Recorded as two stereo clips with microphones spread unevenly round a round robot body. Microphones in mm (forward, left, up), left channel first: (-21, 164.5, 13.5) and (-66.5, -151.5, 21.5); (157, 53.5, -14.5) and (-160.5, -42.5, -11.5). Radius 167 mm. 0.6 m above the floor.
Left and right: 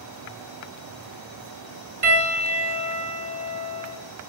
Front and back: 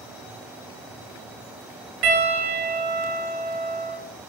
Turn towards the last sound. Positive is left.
turn(degrees=-140)